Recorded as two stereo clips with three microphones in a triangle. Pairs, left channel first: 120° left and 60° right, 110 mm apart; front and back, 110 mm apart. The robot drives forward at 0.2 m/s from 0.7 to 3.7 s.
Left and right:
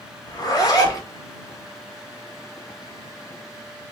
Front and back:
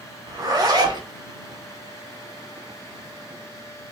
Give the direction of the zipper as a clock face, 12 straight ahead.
7 o'clock.